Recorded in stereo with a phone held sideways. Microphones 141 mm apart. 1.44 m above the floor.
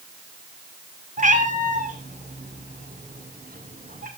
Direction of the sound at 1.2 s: 65° right (ahead or behind).